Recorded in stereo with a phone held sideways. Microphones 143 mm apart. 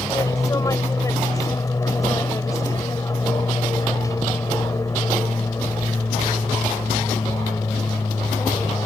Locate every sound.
0.0 s an aircraft: 20° left (ahead or behind)